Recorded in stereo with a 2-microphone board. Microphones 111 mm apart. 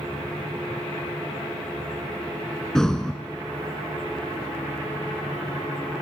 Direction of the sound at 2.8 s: 5° left (ahead or behind).